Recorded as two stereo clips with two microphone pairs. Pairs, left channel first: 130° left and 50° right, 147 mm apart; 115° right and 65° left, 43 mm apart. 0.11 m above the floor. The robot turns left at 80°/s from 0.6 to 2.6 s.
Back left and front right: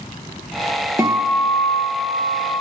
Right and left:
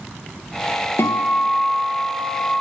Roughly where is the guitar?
Behind right.